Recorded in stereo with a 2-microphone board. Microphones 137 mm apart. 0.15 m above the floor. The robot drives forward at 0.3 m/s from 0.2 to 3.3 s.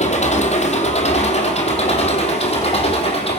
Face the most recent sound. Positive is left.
turn(degrees=45)  # may be behind; listen again after turning